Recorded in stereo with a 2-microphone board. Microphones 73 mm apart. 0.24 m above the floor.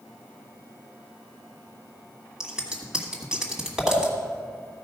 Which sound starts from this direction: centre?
Scissors, at 2.4 s.